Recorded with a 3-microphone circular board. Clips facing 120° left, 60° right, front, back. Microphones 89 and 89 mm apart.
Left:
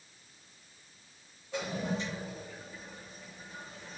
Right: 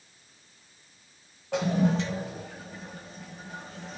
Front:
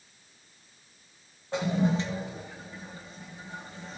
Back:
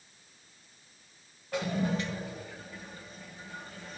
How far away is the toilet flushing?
About 1.6 m.